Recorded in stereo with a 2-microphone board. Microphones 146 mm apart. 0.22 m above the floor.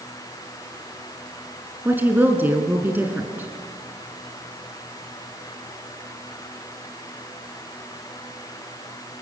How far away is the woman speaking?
About 2 m.